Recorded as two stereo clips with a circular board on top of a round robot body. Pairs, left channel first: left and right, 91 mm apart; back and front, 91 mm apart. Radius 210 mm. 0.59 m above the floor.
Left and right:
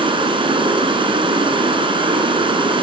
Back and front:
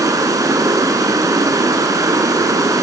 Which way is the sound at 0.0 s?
55° right.